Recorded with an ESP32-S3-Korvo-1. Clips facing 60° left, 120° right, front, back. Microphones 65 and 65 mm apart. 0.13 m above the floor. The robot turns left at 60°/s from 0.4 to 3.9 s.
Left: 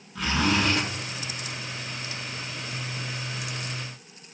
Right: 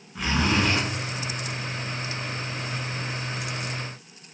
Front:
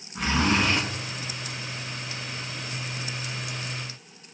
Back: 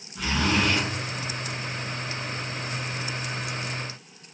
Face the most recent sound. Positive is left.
turn(degrees=100)